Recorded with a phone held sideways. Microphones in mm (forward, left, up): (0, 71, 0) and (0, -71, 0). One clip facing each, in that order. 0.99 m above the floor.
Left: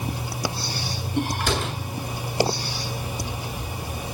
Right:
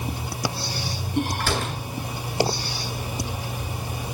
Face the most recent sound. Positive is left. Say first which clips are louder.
# left 1 dB
turn(degrees=15)  # may be behind; listen again after turning